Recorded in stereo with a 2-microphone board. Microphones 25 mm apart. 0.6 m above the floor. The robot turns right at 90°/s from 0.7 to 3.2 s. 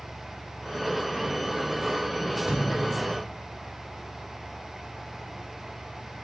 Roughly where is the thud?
Behind.